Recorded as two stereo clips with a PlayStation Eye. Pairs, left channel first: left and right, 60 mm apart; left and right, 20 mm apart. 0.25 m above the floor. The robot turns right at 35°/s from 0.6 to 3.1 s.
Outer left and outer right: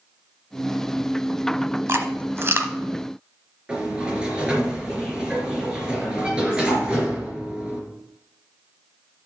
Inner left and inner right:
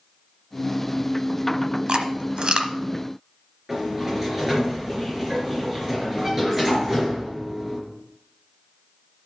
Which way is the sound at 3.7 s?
15° right (ahead or behind).